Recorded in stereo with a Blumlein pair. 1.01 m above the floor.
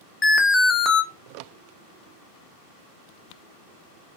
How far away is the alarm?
About 0.6 m.